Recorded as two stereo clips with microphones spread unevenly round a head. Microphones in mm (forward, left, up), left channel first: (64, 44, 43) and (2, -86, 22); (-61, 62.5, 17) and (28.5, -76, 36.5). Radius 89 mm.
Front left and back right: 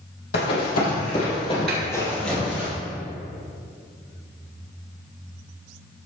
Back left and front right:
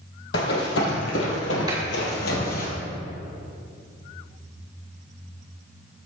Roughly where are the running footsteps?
Left.